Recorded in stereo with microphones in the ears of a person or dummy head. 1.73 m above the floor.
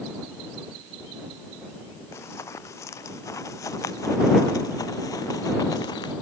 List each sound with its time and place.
2.1 s running footsteps: 15° left (ahead or behind); by 6.1 s 20° left (ahead or behind)